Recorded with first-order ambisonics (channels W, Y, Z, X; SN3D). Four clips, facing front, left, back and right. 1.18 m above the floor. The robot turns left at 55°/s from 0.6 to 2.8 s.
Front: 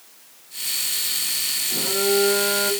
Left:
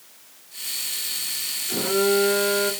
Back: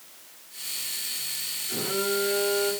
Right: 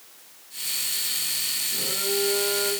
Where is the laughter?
I don't hear laughter.